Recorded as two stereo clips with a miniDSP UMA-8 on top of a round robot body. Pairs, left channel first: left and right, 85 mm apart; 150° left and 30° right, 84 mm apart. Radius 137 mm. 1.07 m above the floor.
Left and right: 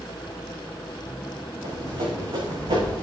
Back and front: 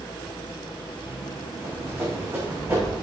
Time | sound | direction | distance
1.6 | running footsteps | 90° right | 5.5 m